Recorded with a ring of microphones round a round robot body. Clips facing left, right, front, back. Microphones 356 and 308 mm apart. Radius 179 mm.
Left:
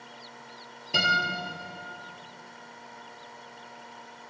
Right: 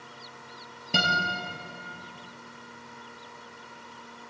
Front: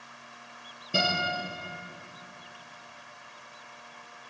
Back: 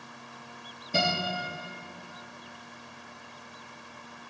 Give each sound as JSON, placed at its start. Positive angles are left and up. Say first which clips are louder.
{"t": 0.9, "sound": "a guitar", "louder": "right 2 dB, back 1 dB", "azimuth_deg": -80, "distance_m": 3.5}